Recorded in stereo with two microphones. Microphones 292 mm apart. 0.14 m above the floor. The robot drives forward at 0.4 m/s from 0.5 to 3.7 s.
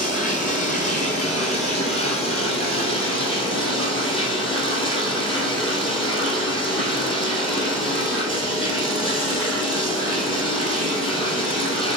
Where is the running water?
30° left (ahead or behind), 2.5 m; by 12.0 s 20° left (ahead or behind), 3.5 m.